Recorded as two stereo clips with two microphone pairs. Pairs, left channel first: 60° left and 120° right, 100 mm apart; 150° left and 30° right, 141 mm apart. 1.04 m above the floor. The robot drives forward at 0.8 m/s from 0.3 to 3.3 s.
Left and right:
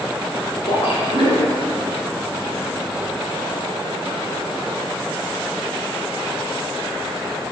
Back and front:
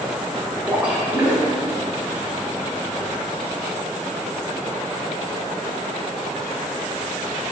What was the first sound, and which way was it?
A splash, 45° left.